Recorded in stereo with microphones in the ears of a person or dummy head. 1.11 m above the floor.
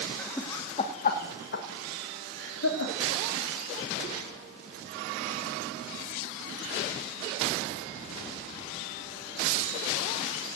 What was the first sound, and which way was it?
Laughter, 10° left (ahead or behind).